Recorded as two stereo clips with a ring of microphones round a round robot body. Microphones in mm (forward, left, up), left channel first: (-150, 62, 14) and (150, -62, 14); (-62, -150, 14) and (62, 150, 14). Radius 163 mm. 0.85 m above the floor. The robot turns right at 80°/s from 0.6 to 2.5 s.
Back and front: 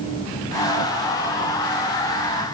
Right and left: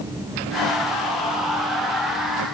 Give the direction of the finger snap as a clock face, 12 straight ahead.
No finger snap in this recording.